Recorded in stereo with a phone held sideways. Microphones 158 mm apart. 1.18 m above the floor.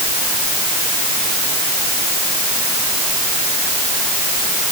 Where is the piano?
No piano in this recording.